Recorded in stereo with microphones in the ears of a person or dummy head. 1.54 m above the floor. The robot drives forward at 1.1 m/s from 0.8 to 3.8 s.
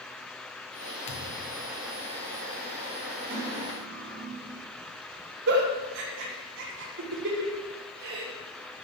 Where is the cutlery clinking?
65° right (ahead or behind), 4 m; by 4.7 s 55° right (ahead or behind), 4 m.